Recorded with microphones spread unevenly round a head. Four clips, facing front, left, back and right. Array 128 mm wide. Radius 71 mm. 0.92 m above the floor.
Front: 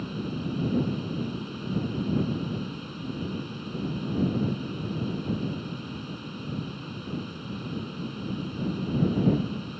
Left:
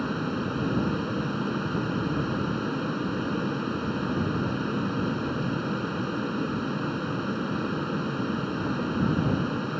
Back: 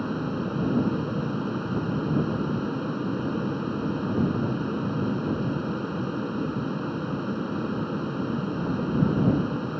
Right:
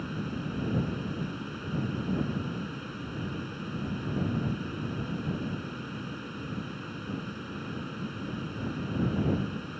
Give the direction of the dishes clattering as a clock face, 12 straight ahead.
No dishes clattering in this recording.